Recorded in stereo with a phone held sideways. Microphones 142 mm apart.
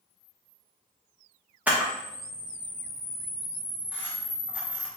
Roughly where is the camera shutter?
Centre.